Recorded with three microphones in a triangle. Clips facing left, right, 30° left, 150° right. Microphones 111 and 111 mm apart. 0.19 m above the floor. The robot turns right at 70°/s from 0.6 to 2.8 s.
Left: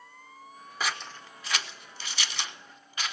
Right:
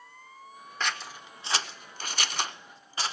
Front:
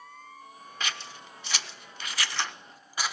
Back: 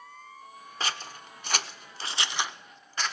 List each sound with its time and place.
0.8 s scissors: 170° left, 0.5 m; by 3.1 s 50° right, 0.5 m